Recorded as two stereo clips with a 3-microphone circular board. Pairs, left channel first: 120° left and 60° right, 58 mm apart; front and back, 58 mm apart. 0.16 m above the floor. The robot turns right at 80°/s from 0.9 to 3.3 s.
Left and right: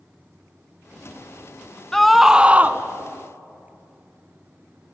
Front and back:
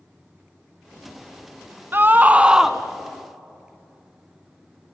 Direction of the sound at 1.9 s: 160° right.